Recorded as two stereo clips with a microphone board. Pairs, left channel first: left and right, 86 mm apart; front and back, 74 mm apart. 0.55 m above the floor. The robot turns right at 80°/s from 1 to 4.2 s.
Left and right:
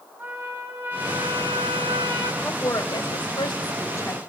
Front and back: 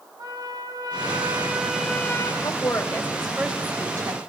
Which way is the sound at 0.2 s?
155° right.